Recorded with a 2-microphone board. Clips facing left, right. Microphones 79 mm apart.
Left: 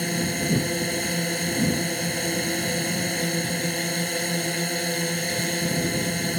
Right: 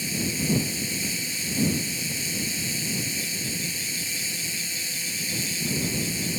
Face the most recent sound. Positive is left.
turn(degrees=55)  # may be behind; listen again after turning